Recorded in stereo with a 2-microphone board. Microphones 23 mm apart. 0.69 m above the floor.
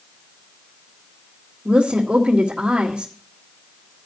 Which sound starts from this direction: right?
A woman speaking, at 1.6 s.